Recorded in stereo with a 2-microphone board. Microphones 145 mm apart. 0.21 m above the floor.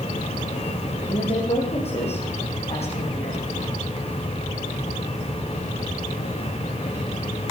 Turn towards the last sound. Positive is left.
turn(degrees=50)  # may be behind; listen again after turning